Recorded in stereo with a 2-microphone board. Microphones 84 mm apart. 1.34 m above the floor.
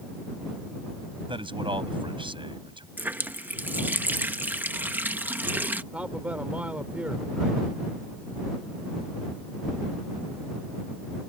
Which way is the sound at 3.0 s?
20° right (ahead or behind).